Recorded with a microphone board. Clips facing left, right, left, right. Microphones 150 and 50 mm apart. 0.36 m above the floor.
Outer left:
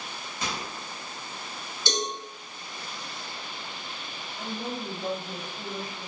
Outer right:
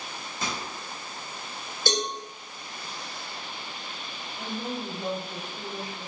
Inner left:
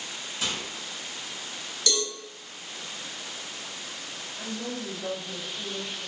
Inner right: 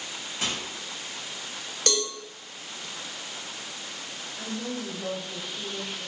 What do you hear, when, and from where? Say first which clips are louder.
0.4 s a microwave: even, inner right 1 dB; 40° right (ahead or behind), 1.4 m
1.9 s a cowbell: outer right 2 dB, inner right 1 dB; 50° right (ahead or behind), 0.7 m
4.4 s a woman speaking: outer right 1 dB, inner right 1 dB; 25° right (ahead or behind), 1.7 m